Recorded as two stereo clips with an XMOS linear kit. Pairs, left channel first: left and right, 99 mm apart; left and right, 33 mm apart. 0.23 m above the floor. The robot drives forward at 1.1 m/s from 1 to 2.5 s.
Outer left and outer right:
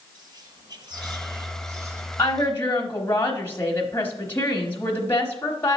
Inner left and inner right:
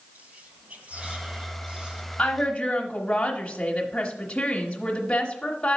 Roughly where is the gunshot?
I don't hear a gunshot.